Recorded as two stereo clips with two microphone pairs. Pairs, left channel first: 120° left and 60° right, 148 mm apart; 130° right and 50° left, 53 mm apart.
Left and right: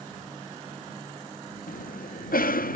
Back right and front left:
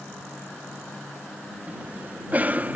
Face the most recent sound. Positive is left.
turn(degrees=110)